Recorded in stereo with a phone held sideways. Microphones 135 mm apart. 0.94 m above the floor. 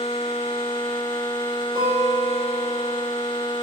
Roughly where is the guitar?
Right.